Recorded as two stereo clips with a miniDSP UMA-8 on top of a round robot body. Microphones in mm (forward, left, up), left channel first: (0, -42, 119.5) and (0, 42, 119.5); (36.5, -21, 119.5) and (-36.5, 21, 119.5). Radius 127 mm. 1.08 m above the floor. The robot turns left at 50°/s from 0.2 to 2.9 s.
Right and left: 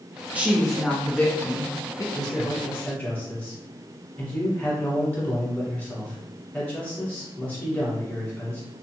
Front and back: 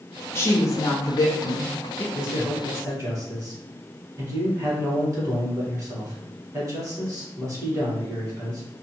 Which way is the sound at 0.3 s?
20° left.